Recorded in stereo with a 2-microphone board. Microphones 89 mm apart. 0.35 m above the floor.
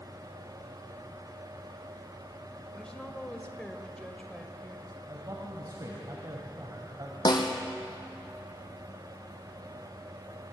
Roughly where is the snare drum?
Left.